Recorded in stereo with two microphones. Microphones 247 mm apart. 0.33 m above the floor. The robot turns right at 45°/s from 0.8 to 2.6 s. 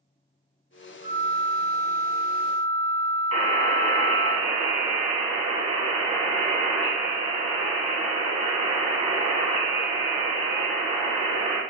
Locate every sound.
1.0 s a flute: 95° right, 1.7 m; by 4.3 s 20° right, 1.7 m
3.3 s a buzzer: 25° right (ahead or behind), 2 m